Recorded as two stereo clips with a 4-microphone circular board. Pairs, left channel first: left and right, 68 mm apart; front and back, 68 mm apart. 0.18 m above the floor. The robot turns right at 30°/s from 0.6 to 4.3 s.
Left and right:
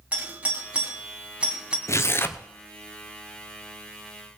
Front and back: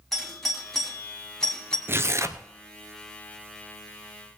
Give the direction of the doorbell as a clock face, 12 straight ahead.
3 o'clock.